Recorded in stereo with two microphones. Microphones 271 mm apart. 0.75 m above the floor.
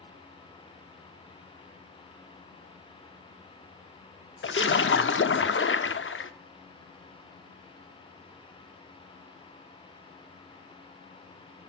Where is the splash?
50° left (ahead or behind), 0.5 m.